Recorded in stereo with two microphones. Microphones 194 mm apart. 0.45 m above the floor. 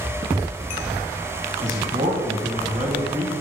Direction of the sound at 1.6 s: 40° right (ahead or behind).